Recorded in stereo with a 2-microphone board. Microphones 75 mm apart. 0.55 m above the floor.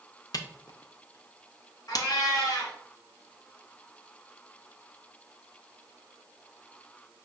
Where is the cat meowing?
60° left (ahead or behind), 1.3 m.